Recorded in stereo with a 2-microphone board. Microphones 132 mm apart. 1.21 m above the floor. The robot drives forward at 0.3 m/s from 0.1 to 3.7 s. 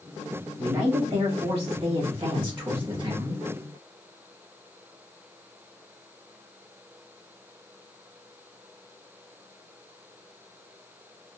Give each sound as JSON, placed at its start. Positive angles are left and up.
{"t": 0.6, "sound": "a man speaking", "side_deg": -45, "distance_m": 0.9}